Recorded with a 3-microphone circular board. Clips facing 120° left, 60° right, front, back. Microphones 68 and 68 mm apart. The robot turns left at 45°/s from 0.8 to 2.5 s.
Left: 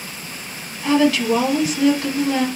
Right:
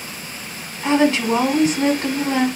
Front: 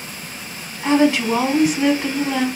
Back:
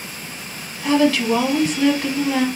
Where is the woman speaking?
25° right, 1.1 m; by 2.5 s 100° right, 1.1 m.